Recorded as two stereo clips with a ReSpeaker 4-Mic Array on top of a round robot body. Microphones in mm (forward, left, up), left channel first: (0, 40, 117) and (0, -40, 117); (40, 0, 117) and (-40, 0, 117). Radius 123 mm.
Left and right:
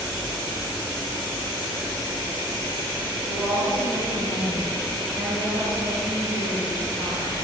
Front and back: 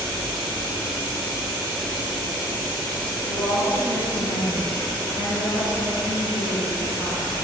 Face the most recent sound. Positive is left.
turn(degrees=-20)